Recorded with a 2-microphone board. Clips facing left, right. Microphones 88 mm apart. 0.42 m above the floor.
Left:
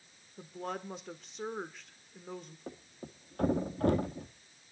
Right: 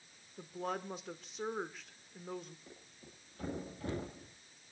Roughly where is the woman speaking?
Centre.